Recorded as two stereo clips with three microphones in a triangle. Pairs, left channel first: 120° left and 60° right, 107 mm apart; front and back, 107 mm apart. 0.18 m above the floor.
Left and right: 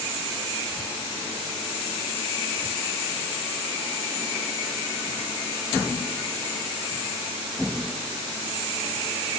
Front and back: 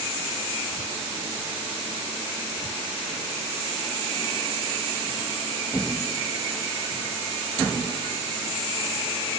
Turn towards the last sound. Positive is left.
No sound to turn to.